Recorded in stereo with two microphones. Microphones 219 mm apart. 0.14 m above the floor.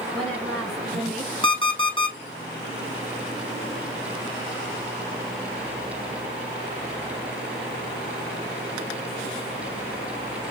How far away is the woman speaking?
About 1.8 m.